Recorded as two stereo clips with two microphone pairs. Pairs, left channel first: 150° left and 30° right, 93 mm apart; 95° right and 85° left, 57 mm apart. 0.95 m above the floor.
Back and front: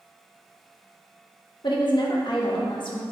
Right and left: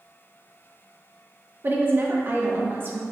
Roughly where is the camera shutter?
I don't hear a camera shutter.